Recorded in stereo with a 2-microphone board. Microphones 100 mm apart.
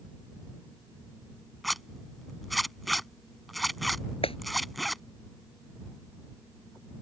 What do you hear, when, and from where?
1.6 s a zipper: centre (ahead or behind)
4.2 s a clap: 70° left (ahead or behind)